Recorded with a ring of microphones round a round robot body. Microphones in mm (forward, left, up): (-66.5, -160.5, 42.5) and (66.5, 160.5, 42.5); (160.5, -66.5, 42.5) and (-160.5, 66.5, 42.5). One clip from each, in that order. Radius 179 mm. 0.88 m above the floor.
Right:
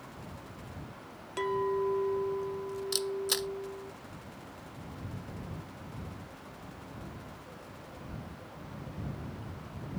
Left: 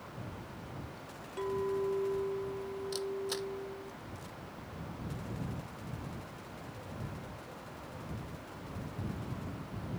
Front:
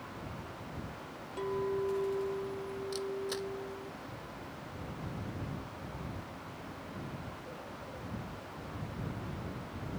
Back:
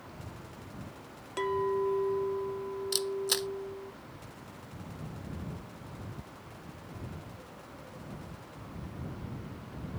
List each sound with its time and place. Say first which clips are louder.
1.4 s a clink: right 4 dB, back 4 dB; 160° right
2.9 s a camera shutter: right 6 dB, back 7 dB; 165° right